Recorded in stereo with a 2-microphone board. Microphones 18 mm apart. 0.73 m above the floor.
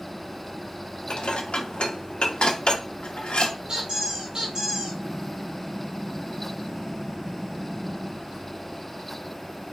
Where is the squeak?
40° right (ahead or behind), 2.5 m.